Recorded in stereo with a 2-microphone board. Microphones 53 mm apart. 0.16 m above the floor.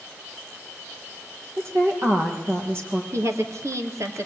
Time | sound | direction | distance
1.6 | a woman speaking | 55° right (ahead or behind) | 6 m
3.1 | a woman speaking | 65° right (ahead or behind) | 3.5 m